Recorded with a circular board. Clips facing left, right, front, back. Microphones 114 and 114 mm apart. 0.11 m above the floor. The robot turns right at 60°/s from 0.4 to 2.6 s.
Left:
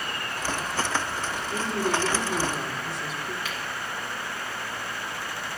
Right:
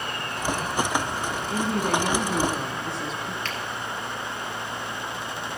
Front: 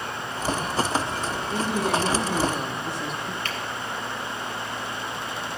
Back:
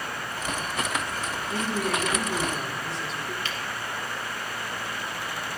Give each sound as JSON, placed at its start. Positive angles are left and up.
{"t": 1.5, "sound": "a woman speaking", "azimuth_deg": -100, "distance_m": 4.0}
{"t": 3.5, "sound": "a finger snap", "azimuth_deg": 10, "distance_m": 2.5}